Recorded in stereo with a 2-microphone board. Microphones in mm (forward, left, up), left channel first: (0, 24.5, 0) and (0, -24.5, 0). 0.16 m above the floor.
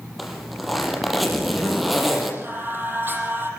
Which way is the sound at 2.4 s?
45° right (ahead or behind).